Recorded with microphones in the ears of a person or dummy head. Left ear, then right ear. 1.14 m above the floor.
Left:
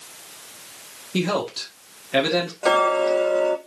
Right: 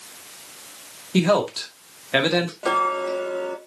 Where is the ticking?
20° left (ahead or behind), 1.0 m.